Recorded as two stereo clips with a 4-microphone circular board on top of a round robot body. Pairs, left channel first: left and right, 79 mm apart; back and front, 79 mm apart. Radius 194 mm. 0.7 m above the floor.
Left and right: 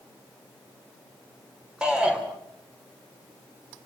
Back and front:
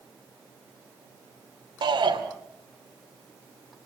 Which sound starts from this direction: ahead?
A shout, at 1.8 s.